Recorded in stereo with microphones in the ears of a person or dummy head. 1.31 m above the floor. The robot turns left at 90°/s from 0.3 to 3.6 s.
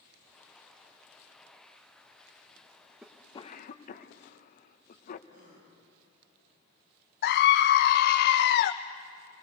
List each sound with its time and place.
3.0 s a cough: 10° right (ahead or behind), 1.6 m; by 5.2 s 40° left (ahead or behind), 1.6 m
5.3 s a gasp: 50° right (ahead or behind), 10 m
7.2 s a scream: 60° left (ahead or behind), 0.7 m